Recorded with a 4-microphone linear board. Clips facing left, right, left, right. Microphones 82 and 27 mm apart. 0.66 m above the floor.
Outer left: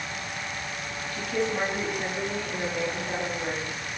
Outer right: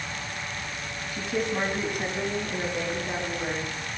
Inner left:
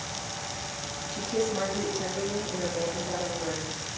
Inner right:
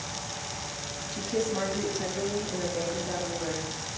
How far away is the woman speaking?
About 4.5 m.